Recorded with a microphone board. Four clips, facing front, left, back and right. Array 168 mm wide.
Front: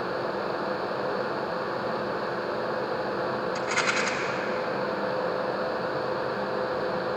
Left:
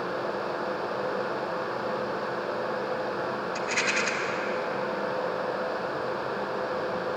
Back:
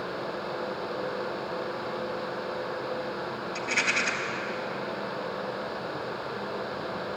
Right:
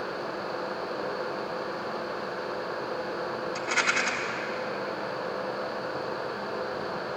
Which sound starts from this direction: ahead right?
A rattle, at 3.5 s.